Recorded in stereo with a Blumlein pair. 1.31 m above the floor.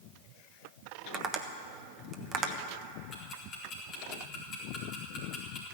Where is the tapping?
25° right, 1.3 m.